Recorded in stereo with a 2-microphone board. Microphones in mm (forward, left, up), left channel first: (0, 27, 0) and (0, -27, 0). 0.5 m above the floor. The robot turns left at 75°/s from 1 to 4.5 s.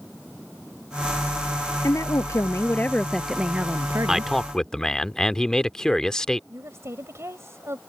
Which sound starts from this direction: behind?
A man speaking, at 4.1 s.